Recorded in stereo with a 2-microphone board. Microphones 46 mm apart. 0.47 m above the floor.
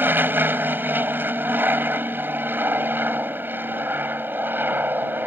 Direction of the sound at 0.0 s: 45° right (ahead or behind).